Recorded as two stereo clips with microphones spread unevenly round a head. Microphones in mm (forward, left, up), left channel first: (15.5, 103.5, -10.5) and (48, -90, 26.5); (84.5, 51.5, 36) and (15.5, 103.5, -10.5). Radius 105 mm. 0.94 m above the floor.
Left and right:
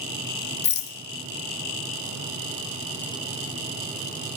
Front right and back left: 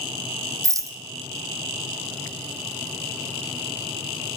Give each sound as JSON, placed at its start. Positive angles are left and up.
{"t": 0.6, "sound": "a rattle", "azimuth_deg": 70, "distance_m": 0.9}